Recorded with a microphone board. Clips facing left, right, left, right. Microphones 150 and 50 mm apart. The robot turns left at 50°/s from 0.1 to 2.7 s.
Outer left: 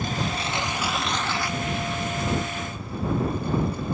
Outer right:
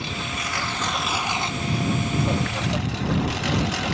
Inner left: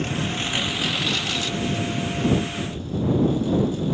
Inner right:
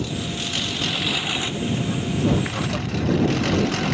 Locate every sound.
0.0 s a lawn mower: 45° left; by 3.9 s 85° right